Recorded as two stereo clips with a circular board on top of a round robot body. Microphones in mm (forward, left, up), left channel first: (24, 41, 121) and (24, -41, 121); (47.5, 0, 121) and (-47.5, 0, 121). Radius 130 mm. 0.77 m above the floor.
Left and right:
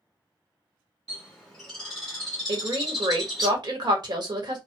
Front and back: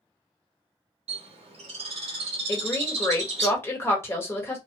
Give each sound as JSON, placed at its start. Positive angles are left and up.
{"t": 1.1, "sound": "a bird", "azimuth_deg": 175, "distance_m": 0.9}
{"t": 2.5, "sound": "a woman speaking", "azimuth_deg": -65, "distance_m": 1.2}